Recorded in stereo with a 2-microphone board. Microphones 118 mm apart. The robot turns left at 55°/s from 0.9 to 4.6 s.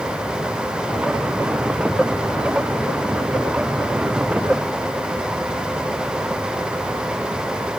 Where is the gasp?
I don't hear a gasp.